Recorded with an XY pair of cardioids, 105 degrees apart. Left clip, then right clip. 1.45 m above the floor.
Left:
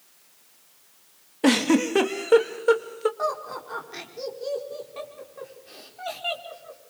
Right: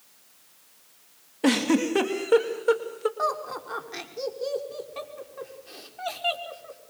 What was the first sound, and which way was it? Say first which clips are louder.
A giggle: left 2 dB; 20° left.